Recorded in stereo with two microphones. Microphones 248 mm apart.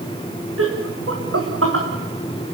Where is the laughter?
70° right (ahead or behind), 7.5 m.